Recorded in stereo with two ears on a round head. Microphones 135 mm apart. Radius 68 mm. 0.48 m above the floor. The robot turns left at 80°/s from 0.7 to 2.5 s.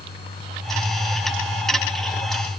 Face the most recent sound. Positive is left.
No sound to turn to.